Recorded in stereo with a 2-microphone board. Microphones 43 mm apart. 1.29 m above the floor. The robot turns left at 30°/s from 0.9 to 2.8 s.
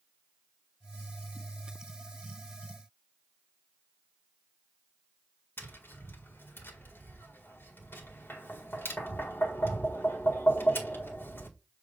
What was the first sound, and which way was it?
Tapping, 55° left (ahead or behind).